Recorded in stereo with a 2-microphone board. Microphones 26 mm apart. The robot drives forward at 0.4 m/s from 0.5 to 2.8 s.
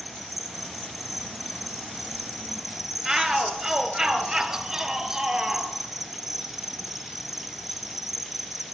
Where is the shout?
20° right (ahead or behind), 3.5 m.